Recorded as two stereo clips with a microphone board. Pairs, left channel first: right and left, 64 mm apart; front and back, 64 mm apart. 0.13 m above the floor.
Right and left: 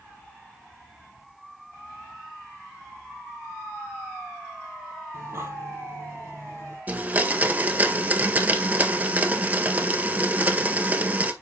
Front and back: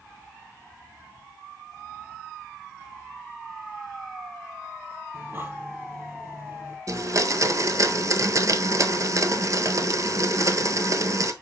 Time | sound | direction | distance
5.1 | breathing | 130° left | 2.5 m
6.9 | a blender | 150° left | 0.8 m